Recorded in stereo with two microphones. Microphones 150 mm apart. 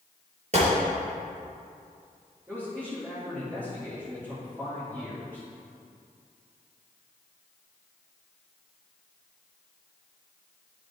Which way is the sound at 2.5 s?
15° right (ahead or behind).